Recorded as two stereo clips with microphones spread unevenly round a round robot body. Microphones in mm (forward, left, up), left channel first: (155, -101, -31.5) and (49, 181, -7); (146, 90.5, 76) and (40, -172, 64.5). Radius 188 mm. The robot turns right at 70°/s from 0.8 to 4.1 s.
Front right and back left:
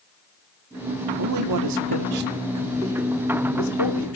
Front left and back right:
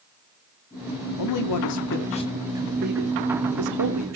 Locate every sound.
1.2 s a man speaking: 70° left, 2.5 m; by 4.2 s 85° right, 2.5 m